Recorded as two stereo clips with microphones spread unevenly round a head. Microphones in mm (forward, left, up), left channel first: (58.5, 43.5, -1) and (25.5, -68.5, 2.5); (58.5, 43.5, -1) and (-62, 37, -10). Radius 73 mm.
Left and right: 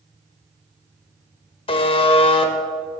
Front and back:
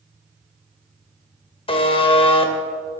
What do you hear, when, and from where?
1.7 s a buzzer: 35° left, 0.8 m